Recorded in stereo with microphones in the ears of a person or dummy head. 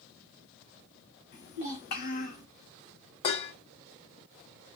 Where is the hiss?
No hiss in this recording.